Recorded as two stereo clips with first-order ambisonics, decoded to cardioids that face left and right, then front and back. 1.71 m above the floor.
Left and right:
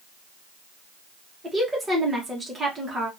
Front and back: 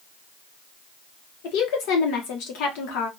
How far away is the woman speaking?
About 1.1 m.